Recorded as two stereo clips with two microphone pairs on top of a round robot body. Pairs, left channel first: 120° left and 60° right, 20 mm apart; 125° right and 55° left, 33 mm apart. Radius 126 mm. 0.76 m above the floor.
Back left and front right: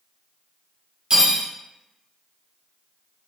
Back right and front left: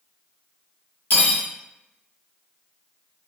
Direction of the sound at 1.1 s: 120° right.